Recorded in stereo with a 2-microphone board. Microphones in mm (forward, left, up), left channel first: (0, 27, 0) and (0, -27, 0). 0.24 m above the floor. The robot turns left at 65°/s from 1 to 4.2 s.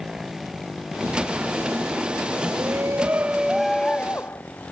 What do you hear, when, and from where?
0.0 s a motorcycle: 10° right (ahead or behind); by 4.7 s 35° left (ahead or behind)
2.5 s a shout: 110° right; by 4.4 s 140° left